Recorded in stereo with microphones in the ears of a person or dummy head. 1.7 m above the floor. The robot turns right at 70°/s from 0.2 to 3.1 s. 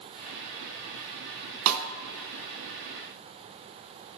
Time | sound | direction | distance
1.7 | a snare drum | 80° right | 0.6 m